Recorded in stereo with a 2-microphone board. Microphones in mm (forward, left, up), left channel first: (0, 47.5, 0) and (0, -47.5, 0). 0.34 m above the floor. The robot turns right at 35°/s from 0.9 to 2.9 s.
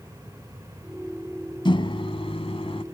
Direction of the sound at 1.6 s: 60° left.